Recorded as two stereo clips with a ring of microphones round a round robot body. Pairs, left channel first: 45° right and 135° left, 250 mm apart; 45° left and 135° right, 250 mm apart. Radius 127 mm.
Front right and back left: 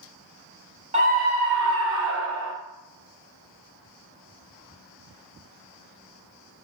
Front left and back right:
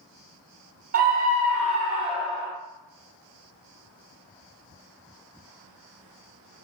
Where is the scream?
170° right, 1.1 m; by 2.5 s 155° left, 1.8 m.